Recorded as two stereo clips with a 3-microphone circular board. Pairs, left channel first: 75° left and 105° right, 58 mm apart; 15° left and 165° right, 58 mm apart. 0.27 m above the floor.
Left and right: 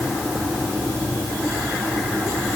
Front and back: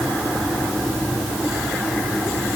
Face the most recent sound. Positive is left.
No sound to turn to.